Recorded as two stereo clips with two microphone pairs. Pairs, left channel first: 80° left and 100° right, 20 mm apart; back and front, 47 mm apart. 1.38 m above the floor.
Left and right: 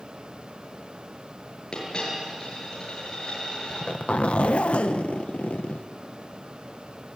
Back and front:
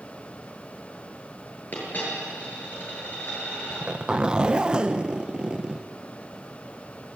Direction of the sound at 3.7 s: 70° left.